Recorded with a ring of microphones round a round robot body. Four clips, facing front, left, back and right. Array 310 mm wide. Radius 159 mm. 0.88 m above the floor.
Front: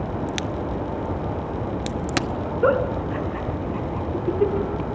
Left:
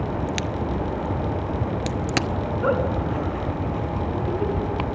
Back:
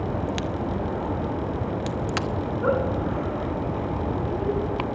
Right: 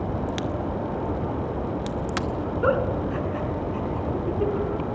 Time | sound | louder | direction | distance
0.3 | a crack | left 1 dB, even | 50° left | 0.9 m
2.6 | a giggle | even, front 4 dB | 10° right | 5 m